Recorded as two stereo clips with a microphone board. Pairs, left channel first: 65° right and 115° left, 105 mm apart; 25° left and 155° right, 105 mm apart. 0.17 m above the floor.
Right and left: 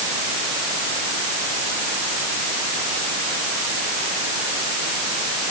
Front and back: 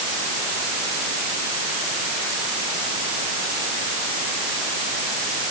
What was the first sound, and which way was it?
Only background noise.